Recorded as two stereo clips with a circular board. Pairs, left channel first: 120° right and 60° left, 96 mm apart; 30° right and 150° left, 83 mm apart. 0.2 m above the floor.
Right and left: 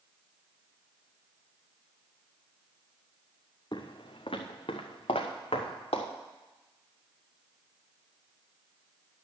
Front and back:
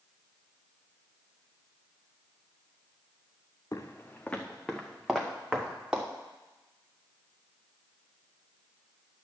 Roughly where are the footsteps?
Right.